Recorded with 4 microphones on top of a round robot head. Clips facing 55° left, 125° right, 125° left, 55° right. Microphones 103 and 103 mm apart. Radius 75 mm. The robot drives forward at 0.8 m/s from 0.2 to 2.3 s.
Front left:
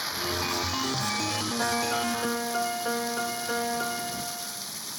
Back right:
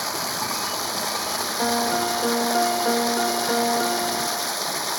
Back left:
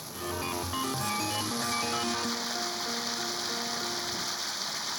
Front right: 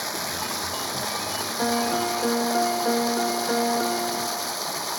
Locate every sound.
0.0 s running water: 75° right; by 5.0 s 95° right
1.6 s a piano: 60° right; by 4.7 s 70° right